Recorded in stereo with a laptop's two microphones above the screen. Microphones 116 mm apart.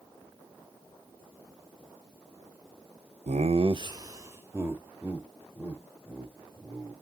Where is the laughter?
75° right (ahead or behind), 0.8 m; by 6.9 s 5° right (ahead or behind), 5 m.